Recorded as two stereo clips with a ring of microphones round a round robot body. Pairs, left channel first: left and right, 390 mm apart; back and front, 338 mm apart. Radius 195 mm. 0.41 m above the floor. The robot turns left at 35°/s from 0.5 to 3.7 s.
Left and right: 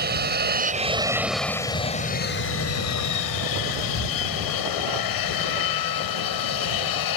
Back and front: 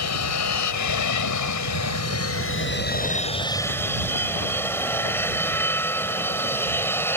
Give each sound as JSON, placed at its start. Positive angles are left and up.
{"t": 0.0, "sound": "an aircraft", "azimuth_deg": -150}